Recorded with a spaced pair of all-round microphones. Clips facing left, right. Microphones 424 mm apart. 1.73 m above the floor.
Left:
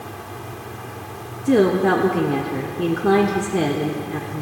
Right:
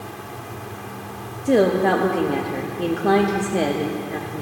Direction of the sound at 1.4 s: 20° left (ahead or behind).